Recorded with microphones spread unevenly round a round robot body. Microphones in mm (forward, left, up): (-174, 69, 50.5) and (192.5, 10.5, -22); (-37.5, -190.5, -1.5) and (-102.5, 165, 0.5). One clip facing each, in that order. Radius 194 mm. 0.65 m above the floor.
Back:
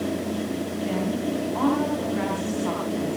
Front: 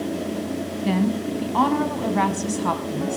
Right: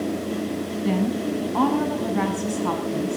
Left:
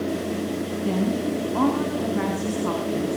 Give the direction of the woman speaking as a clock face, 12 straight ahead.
12 o'clock.